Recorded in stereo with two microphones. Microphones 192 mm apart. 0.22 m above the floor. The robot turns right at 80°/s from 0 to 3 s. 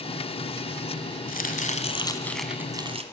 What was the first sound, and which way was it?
Chopping, 90° left.